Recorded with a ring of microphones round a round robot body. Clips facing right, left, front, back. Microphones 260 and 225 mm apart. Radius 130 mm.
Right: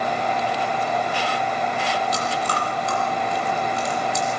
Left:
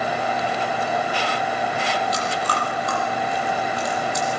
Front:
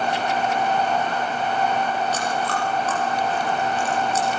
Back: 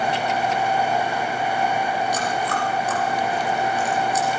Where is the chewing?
100° right, 8.5 m.